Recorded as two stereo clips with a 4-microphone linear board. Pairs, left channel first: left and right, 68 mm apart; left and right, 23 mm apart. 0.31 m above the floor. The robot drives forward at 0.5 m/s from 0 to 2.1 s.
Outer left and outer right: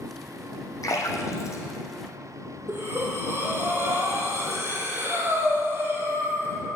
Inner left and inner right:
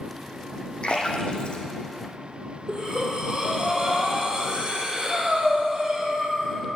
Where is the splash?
55° left (ahead or behind), 2 m; by 1.6 s 45° left (ahead or behind), 2.5 m.